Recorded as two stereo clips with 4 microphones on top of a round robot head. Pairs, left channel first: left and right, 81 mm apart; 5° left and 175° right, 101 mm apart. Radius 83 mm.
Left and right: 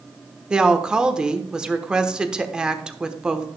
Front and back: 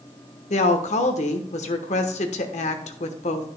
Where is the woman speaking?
10° right, 1.1 m.